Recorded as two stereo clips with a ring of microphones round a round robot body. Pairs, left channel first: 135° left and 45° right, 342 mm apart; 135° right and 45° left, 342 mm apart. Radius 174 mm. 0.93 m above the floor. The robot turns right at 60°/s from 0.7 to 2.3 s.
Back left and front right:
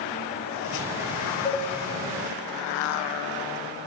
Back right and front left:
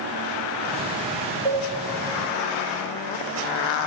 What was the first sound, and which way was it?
A cowbell, 50° left.